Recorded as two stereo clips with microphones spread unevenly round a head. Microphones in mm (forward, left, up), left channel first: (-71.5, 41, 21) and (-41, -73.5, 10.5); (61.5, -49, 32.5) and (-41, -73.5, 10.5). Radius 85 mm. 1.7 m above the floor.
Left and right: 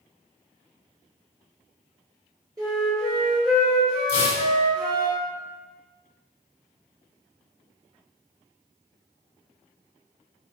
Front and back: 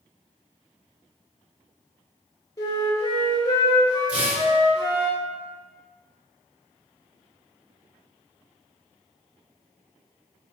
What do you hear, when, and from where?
2.6 s a flute: 10° right, 1.7 m
4.1 s tearing paper: 95° left, 1.3 m